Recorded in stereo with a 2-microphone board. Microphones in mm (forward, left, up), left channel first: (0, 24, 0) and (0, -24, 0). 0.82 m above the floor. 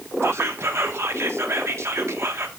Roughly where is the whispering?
Right.